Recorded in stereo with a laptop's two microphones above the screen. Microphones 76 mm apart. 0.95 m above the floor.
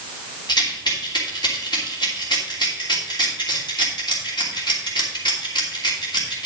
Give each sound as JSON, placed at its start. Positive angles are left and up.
{"t": 0.5, "sound": "a rattle", "side_deg": 75, "distance_m": 2.5}